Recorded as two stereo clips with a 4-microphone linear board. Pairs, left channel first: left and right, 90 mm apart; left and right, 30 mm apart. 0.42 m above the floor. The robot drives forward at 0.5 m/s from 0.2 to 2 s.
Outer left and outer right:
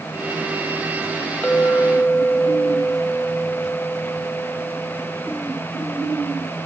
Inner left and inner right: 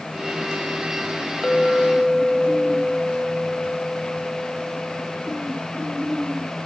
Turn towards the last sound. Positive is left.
turn(degrees=15)  # may be behind; listen again after turning